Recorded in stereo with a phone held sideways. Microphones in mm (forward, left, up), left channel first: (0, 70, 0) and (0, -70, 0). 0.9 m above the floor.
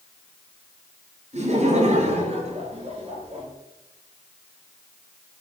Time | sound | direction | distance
1.3 | laughter | 55° right (ahead or behind) | 8.5 m